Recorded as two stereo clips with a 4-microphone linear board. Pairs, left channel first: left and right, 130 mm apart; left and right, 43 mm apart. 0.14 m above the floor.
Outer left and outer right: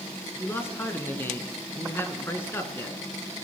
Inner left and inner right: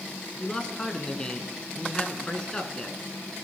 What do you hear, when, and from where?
0.4 s a man speaking: 20° left (ahead or behind), 1.4 m